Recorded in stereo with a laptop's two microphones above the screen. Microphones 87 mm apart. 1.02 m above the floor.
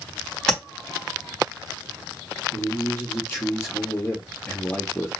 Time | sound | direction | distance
0.5 | tapping | 5° left (ahead or behind) | 3 m
2.5 | a man speaking | 25° left (ahead or behind) | 1.6 m